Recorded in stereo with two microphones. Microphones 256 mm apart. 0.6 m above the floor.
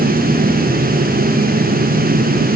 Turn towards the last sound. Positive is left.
No sound to turn to.